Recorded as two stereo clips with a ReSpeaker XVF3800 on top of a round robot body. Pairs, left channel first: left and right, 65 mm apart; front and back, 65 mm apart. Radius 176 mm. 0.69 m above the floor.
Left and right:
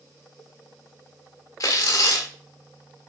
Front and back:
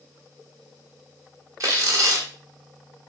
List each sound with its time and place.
1.6 s tearing paper: 135° left, 1.6 m